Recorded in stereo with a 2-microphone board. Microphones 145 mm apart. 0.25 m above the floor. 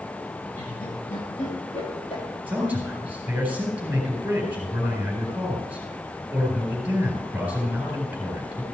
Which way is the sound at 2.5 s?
10° right (ahead or behind).